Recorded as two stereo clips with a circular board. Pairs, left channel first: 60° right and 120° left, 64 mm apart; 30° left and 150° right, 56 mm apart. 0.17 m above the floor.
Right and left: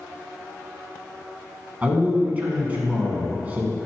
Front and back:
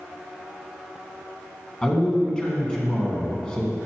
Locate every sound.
1.8 s a man speaking: 85° left, 1.5 m